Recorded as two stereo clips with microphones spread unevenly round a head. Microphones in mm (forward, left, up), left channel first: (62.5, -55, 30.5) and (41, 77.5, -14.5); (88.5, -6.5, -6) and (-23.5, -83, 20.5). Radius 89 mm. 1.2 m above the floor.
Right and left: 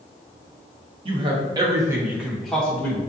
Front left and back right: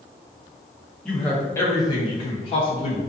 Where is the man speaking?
110° left, 0.7 m; by 3.0 s 5° left, 0.8 m.